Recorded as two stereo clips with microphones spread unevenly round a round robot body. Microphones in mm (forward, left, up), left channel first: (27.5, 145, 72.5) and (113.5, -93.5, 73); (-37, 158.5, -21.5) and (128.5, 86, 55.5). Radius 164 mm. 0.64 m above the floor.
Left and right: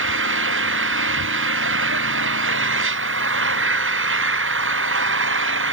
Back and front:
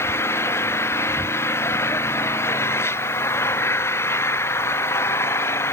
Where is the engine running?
120° right.